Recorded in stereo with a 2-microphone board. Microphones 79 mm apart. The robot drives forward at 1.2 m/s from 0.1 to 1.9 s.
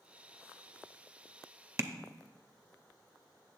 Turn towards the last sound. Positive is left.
turn(degrees=-35)  # may be behind; listen again after turning